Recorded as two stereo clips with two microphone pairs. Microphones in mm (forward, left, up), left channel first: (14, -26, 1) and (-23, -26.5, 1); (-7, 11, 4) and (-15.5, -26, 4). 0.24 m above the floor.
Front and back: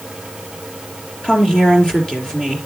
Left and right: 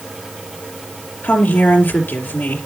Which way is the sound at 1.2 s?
70° left.